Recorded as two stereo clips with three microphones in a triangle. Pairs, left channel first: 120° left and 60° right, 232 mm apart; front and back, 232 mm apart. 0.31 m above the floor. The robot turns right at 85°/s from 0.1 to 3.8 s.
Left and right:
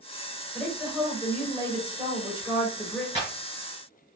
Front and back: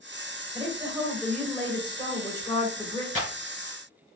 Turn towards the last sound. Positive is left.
turn(degrees=-75)